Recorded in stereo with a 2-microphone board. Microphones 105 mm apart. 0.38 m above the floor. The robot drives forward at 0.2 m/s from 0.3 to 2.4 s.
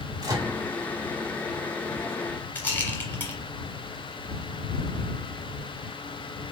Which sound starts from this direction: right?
A microwave, at 0.2 s.